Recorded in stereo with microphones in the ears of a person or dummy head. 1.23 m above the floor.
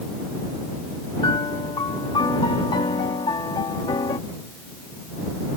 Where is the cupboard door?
I don't hear a cupboard door.